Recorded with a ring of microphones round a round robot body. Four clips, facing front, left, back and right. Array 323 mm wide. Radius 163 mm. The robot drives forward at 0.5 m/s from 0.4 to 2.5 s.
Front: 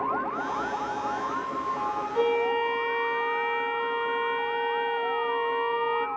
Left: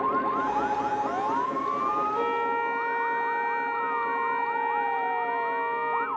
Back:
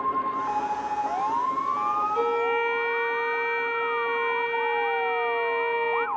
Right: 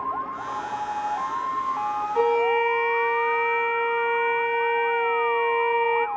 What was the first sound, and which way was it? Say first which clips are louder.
A violin: right 6 dB, even; 80° right.